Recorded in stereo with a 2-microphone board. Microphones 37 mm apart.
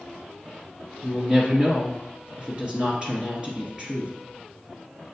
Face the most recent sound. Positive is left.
turn(degrees=-25)  # may be behind; listen again after turning